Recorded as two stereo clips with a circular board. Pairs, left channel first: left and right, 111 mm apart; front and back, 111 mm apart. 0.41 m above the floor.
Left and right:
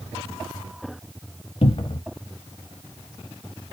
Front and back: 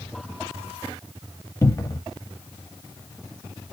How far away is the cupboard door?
About 0.5 m.